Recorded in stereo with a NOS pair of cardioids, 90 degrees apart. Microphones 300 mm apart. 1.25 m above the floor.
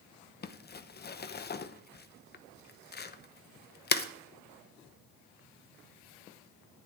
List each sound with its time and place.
0.4 s crumpling: 30° left, 0.9 m